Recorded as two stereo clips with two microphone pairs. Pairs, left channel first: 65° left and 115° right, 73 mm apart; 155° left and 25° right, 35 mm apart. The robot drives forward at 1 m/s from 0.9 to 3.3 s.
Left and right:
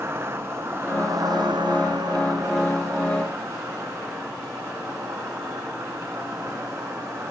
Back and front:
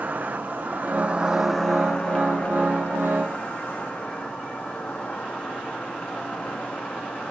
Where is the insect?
55° right, 0.8 m; by 7.3 s 165° right, 2 m.